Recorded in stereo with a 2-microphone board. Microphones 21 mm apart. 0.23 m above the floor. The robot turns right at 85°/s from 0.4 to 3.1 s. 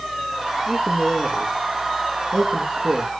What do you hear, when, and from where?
0.7 s a man speaking: 75° left (ahead or behind), 4.5 m; by 3.1 s 55° right (ahead or behind), 4.5 m